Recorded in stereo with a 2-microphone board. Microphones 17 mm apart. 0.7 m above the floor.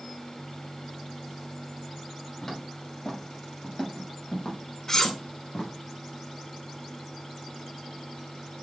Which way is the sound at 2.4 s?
10° left (ahead or behind).